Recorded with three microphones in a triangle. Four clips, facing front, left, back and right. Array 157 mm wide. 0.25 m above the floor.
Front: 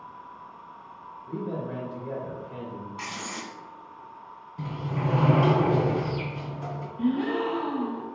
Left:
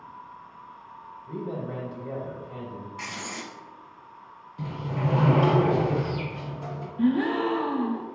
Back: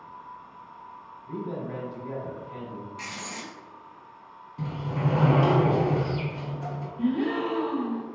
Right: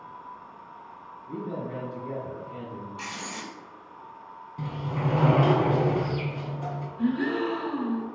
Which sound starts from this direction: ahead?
Writing, at 3.0 s.